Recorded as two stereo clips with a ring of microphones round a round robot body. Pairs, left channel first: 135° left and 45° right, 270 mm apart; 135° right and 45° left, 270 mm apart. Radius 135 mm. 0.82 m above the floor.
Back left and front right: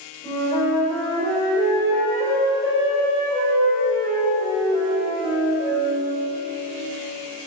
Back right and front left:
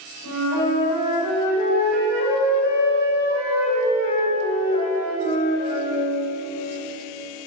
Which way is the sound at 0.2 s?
150° right.